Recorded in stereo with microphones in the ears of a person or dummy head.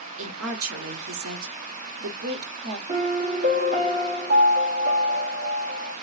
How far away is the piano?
About 1.5 m.